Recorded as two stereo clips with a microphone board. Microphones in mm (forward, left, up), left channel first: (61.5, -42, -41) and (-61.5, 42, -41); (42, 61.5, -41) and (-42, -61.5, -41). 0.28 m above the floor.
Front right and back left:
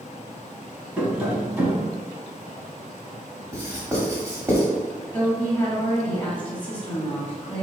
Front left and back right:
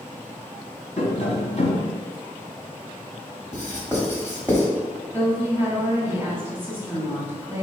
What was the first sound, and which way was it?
Tapping, 70° left.